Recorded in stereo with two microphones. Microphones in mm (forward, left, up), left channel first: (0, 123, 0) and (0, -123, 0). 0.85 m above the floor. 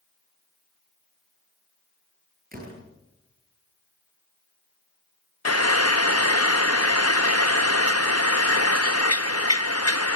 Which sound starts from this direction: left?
Frying, at 5.5 s.